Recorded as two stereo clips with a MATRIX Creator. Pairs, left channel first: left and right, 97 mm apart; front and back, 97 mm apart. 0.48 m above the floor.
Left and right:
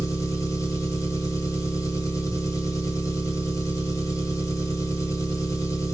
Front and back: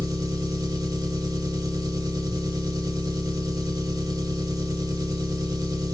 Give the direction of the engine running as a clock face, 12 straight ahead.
7 o'clock.